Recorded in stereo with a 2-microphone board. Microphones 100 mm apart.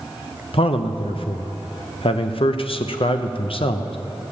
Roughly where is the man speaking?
Left.